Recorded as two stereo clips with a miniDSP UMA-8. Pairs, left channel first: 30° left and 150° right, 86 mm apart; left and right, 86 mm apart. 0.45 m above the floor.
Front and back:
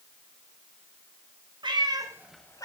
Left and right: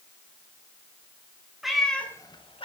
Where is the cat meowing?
175° right, 1.2 m; by 2.7 s 80° left, 0.7 m.